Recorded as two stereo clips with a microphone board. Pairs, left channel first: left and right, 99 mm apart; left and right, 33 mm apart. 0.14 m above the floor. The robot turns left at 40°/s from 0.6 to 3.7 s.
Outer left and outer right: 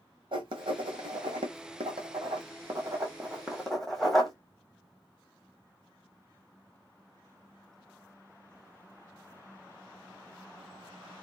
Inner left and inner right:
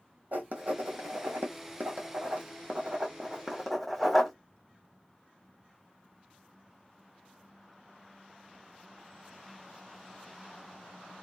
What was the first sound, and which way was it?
Writing, 60° right (ahead or behind).